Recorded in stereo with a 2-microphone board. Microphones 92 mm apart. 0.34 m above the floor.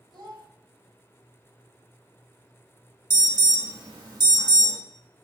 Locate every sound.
0.1 s a child speaking: 55° right (ahead or behind), 1.2 m
3.1 s an alarm: 50° right (ahead or behind), 1.2 m